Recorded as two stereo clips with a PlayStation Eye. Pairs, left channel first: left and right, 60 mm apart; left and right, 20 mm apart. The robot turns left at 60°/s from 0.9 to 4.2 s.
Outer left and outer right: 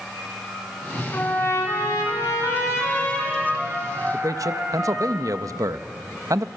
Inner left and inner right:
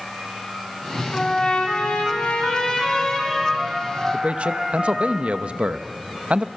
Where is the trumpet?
145° left, 5 m; by 5.1 s 40° right, 5 m.